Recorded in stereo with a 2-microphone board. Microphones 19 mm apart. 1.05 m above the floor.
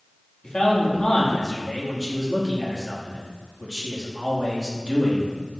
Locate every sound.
0.4 s a man speaking: 40° left (ahead or behind), 2.5 m